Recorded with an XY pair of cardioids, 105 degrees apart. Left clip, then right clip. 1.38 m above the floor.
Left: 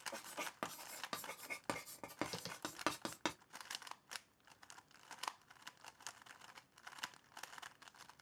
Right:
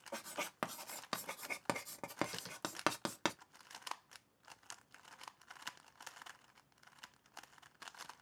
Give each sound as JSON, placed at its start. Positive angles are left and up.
{"t": 0.1, "sound": "writing", "azimuth_deg": -35, "distance_m": 0.6}
{"t": 2.3, "sound": "tapping", "azimuth_deg": 25, "distance_m": 0.8}